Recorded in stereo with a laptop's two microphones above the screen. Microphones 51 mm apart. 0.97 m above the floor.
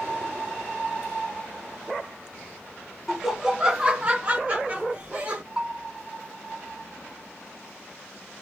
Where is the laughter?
Centre (ahead or behind), 0.7 m; by 5.4 s 35° right (ahead or behind), 1.0 m.